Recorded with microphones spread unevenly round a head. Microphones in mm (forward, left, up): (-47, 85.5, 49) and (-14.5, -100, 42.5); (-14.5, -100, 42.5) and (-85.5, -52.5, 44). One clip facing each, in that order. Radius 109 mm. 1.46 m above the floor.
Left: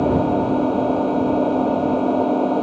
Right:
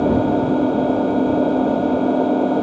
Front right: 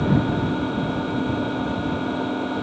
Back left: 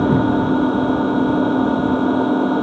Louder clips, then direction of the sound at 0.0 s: Right 1 dB, back left 6 dB; 165° right.